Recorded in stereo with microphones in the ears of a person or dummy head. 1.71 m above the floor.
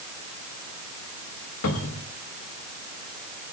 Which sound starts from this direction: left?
A cupboard door, at 1.6 s.